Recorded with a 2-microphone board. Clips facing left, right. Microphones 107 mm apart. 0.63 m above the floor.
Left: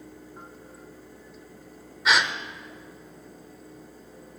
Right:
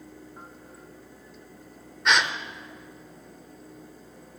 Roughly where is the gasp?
Centre.